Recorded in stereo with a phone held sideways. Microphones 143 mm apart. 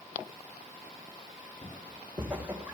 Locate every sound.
1.6 s footsteps: 10° right (ahead or behind), 4 m